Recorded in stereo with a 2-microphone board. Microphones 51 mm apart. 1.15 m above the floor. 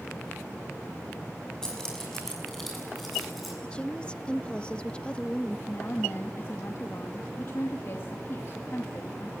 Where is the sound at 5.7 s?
50° left (ahead or behind), 2 m.